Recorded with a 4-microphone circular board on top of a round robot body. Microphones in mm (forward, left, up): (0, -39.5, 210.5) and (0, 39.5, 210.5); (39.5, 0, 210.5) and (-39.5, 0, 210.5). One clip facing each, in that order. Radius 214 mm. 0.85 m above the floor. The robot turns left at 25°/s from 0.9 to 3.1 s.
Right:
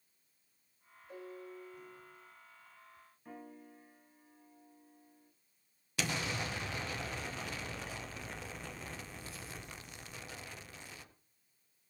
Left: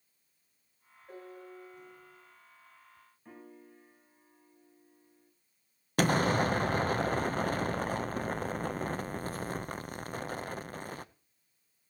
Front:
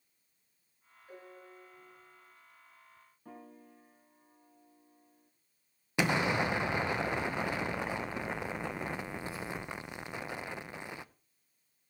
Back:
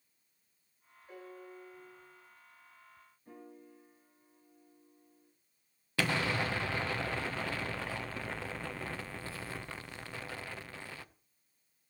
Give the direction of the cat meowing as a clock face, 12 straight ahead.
No cat meowing in this recording.